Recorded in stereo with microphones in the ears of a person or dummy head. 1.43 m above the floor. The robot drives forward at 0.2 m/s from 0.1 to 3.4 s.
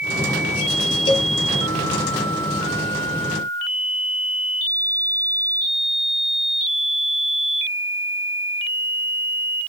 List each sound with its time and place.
1.1 s a cowbell: 30° left (ahead or behind), 0.8 m; by 1.3 s 35° left (ahead or behind), 0.7 m